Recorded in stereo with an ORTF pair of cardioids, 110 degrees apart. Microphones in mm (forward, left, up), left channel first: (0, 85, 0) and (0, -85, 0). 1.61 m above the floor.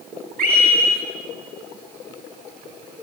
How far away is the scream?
About 9.5 m.